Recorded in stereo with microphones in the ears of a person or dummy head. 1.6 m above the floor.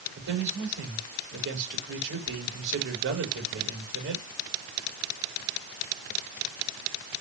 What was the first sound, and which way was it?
A man speaking, 65° right (ahead or behind).